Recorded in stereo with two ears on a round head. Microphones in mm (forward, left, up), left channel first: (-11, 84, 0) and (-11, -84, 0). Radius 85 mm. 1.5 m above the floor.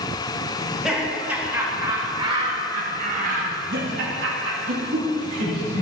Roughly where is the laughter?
Centre.